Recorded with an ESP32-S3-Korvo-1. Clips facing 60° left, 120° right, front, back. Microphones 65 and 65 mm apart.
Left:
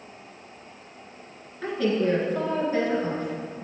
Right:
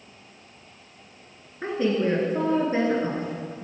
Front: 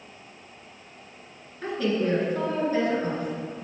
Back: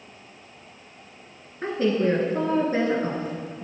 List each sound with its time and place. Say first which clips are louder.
1.6 s a woman speaking: even, back 3 dB; 160° right, 1.5 m